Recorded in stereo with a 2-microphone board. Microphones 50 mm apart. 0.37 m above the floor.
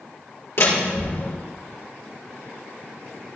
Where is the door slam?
65° left (ahead or behind), 4.5 m.